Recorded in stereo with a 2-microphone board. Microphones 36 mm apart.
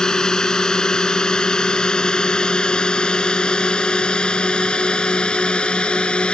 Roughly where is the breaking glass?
I don't hear breaking glass.